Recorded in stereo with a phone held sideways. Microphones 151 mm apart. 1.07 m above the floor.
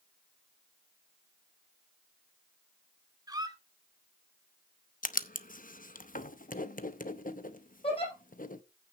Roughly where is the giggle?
Left.